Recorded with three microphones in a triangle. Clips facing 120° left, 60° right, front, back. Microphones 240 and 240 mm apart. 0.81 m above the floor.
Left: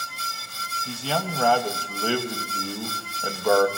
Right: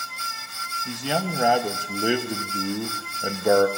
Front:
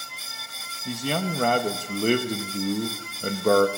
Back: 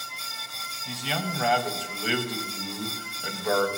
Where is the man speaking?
10° left, 0.6 m.